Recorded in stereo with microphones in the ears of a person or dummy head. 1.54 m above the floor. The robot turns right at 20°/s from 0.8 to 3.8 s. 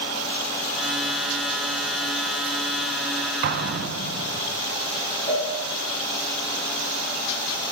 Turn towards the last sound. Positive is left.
turn(degrees=45)  # may be behind; listen again after turning